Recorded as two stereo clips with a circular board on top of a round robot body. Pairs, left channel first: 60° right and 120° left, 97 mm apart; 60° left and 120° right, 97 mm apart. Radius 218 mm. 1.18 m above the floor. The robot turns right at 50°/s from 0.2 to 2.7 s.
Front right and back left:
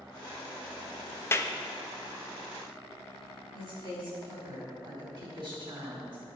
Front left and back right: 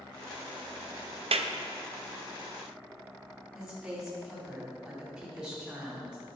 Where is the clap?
125° right, 0.6 m; by 1.5 s 115° right, 0.6 m.